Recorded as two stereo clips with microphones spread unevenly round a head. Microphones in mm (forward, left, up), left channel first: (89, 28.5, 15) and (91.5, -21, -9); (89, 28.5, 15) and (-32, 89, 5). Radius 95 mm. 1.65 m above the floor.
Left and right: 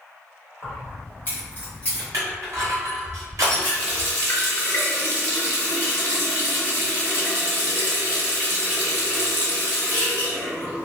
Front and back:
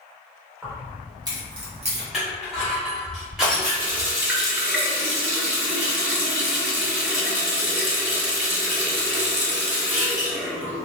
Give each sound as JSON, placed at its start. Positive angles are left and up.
{"t": 0.6, "sound": "keys jangling", "azimuth_deg": 80, "distance_m": 1.5}
{"t": 2.1, "sound": "crushing", "azimuth_deg": -120, "distance_m": 0.6}
{"t": 3.5, "sound": "a running tap", "azimuth_deg": 75, "distance_m": 1.8}